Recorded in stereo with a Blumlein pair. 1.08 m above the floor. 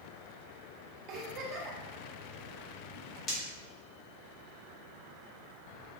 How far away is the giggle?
About 0.8 m.